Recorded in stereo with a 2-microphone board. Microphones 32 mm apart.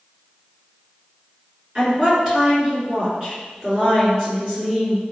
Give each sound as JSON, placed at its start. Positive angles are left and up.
{"t": 1.8, "sound": "a woman speaking", "side_deg": -30, "distance_m": 1.8}